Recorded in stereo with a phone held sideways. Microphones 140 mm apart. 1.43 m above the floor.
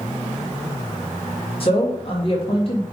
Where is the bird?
I don't hear a bird.